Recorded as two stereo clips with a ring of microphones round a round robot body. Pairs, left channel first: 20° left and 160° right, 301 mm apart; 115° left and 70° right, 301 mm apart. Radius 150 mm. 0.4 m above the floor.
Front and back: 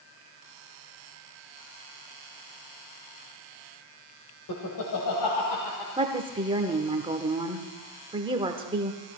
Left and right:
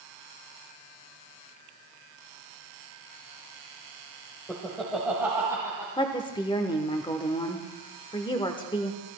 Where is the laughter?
30° left, 1.7 m; by 5.9 s 10° left, 3.5 m.